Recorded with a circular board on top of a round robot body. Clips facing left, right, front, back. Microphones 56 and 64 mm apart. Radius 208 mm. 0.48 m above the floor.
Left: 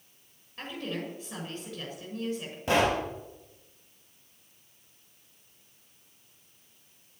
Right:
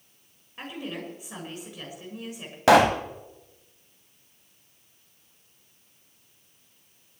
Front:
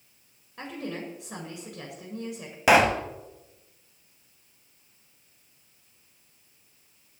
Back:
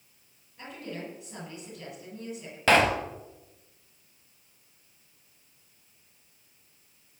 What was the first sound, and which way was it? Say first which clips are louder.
A woman speaking: even, front 4 dB; 15° right.